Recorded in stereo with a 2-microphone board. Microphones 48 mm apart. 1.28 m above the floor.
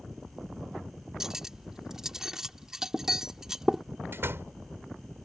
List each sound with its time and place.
1.2 s cutlery clinking: 10° right (ahead or behind)
4.1 s a door slam: 55° right (ahead or behind)